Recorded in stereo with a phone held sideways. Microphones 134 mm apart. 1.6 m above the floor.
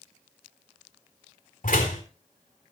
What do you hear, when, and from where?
1.6 s a door slam: 75° left (ahead or behind), 3.5 m